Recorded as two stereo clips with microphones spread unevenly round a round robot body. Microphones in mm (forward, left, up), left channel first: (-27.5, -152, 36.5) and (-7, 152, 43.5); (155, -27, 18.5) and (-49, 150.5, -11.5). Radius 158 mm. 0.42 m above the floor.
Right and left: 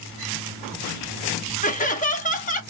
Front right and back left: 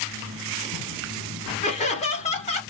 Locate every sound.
1.6 s laughter: 90° right, 0.9 m